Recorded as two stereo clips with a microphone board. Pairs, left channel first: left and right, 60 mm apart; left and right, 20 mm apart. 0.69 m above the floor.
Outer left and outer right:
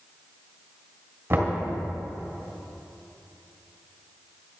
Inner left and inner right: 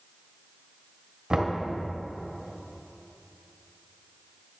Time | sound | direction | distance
1.3 | knocking | 40° right (ahead or behind) | 2.5 m